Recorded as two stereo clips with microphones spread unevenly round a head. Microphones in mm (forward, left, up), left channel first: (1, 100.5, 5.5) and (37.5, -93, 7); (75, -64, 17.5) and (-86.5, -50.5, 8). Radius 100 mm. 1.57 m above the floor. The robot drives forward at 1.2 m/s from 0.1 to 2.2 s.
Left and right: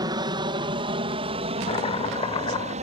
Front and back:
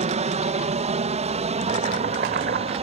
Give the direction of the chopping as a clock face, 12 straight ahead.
7 o'clock.